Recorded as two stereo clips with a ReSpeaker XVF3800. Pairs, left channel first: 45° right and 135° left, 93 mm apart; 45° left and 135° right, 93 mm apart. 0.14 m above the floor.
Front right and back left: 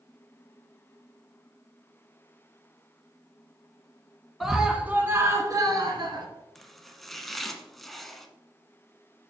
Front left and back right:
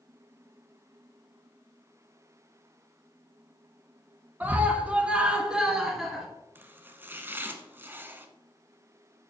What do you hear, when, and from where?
4.4 s a scream: 135° right, 1.0 m; by 6.3 s 140° left, 1.6 m
6.5 s chopping: 130° right, 0.8 m